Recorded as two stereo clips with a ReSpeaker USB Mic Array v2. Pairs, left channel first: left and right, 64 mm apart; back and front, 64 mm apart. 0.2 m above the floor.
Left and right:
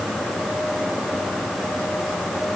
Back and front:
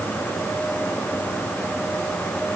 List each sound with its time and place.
Only background noise.